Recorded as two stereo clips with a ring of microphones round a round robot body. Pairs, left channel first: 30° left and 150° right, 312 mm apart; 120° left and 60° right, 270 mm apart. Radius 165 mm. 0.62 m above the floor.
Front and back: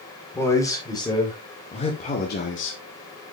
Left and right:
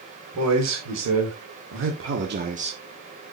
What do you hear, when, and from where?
0.3 s a man speaking: 55° right, 4 m; by 2.8 s 5° left, 1.5 m